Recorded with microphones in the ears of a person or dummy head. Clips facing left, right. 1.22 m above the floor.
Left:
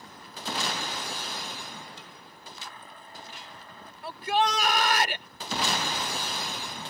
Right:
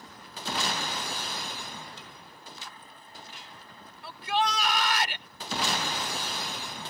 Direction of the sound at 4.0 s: 45° left (ahead or behind).